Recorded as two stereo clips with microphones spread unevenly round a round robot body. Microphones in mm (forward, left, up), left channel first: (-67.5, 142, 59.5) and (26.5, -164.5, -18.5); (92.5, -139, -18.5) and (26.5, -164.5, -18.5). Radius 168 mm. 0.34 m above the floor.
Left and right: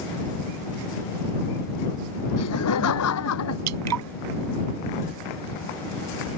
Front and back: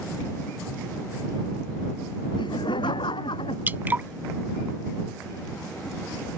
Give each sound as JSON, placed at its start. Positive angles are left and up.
{"t": 2.4, "sound": "laughter", "azimuth_deg": 60}
{"t": 3.7, "sound": "dripping", "azimuth_deg": -95}